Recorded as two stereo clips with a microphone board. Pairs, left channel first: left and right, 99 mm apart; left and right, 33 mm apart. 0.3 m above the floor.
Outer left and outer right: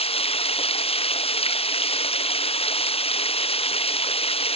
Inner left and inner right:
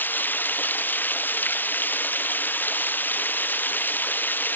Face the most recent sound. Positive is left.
turn(degrees=75)  # may be behind; listen again after turning